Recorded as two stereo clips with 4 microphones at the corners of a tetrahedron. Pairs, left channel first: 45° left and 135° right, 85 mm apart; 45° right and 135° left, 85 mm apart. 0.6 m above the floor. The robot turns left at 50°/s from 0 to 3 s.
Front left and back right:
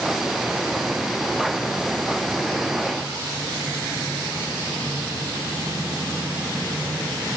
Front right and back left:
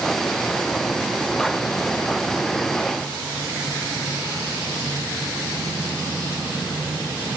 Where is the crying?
I don't hear crying.